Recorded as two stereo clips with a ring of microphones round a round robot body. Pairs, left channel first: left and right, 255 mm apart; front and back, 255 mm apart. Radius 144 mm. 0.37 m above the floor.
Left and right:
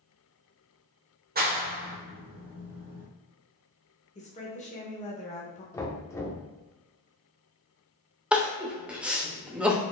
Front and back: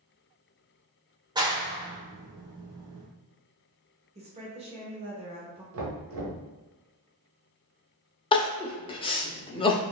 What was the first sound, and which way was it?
A clap, 115° right.